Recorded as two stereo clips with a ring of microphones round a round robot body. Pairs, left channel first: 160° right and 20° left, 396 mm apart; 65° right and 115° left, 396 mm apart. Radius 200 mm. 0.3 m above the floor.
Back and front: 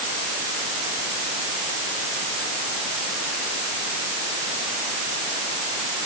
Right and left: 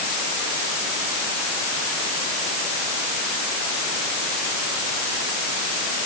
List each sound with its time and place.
Only background noise.